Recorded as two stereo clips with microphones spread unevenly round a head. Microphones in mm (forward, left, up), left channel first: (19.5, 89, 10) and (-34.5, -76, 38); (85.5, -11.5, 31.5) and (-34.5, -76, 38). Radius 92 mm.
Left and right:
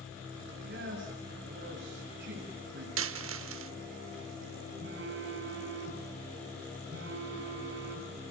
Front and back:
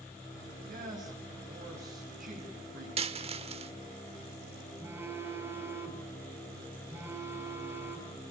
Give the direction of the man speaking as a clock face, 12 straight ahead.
4 o'clock.